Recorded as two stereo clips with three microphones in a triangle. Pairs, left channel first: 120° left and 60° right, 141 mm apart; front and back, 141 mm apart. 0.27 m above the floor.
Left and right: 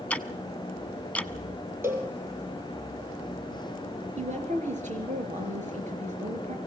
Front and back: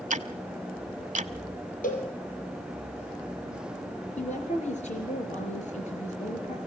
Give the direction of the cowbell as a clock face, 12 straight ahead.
12 o'clock.